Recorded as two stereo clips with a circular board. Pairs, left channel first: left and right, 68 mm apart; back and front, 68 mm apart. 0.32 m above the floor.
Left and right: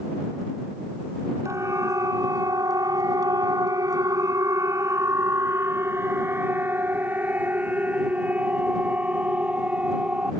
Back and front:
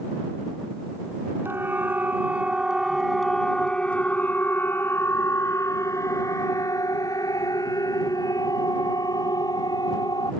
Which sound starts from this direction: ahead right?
A siren, at 1.4 s.